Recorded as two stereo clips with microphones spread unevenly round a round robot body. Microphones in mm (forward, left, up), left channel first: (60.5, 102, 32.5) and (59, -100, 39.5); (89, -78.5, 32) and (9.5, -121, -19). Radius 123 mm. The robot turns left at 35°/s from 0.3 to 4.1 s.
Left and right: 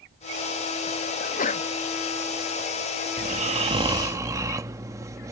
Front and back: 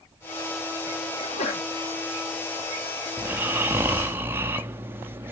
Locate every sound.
1.2 s a sneeze: 75° left; by 1.6 s 60° left
3.2 s snoring: 130° right; by 5.3 s 165° right